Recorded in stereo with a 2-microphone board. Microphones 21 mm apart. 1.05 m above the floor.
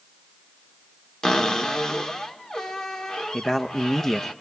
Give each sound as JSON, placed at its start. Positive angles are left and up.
{"t": 1.2, "sound": "a cupboard door", "side_deg": 35, "distance_m": 1.8}
{"t": 3.3, "sound": "a man speaking", "side_deg": 20, "distance_m": 0.8}